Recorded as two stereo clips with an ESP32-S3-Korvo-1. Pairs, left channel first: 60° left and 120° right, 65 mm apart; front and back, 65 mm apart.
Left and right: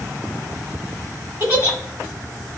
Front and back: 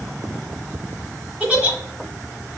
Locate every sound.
1.4 s a giggle: 135° right, 1.2 m